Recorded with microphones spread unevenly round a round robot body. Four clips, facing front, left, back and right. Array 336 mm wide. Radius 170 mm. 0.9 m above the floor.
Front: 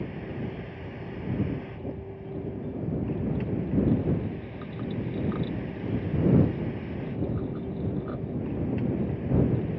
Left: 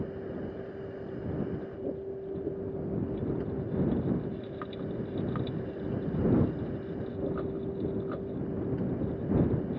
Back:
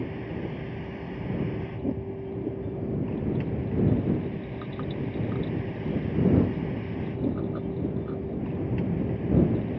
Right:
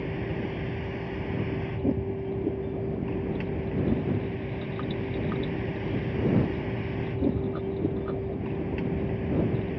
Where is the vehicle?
115° right.